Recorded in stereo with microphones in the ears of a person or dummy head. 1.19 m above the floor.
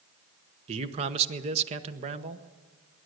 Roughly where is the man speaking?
Right.